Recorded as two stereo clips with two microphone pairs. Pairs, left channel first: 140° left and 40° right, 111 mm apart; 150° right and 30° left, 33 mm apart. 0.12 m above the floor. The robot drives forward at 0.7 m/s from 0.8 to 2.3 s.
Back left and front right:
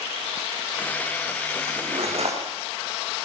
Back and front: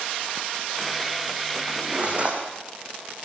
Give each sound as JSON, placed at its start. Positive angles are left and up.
{"t": 1.7, "sound": "cutlery clinking", "azimuth_deg": -20, "distance_m": 5.0}